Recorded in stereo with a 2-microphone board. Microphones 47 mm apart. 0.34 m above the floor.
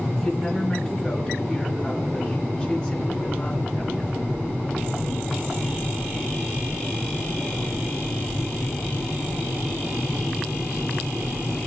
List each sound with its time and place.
0.2 s a woman speaking: 15° left (ahead or behind), 4 m